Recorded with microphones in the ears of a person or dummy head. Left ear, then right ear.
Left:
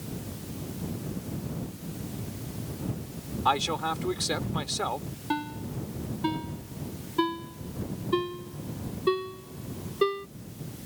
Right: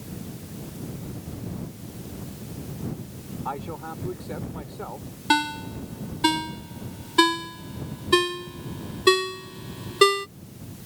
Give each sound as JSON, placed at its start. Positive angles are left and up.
{"t": 3.5, "sound": "a man speaking", "side_deg": 80}
{"t": 5.3, "sound": "a ringtone", "side_deg": -45}